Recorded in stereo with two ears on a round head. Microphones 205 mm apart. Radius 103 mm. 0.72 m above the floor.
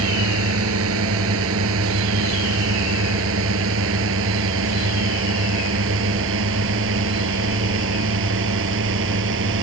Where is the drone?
65° right (ahead or behind); by 9.6 s 60° right (ahead or behind).